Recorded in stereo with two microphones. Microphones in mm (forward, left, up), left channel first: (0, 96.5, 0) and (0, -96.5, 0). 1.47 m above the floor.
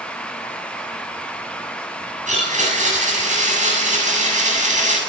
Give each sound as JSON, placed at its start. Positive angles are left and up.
{"t": 2.3, "sound": "a blender", "side_deg": -40, "distance_m": 7.5}